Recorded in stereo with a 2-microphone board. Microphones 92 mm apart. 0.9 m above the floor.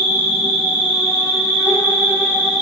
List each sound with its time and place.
0.0 s an insect: 45° left (ahead or behind), 1.3 m